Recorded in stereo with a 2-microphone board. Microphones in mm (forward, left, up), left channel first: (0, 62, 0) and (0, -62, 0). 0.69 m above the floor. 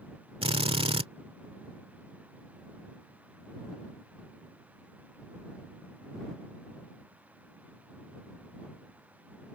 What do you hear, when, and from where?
0.4 s a drill: 50° right (ahead or behind)